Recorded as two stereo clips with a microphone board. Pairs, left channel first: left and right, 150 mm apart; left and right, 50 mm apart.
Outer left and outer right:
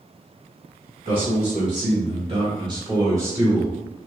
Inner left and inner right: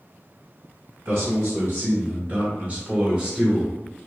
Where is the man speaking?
55° right (ahead or behind), 1.4 m; by 3.7 s 10° right (ahead or behind), 1.3 m.